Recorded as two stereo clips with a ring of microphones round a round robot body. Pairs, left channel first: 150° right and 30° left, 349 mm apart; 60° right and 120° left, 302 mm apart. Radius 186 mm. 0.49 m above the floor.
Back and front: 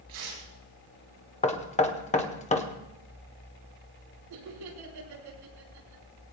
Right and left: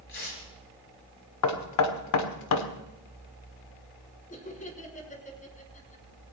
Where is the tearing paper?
10° right, 7 m.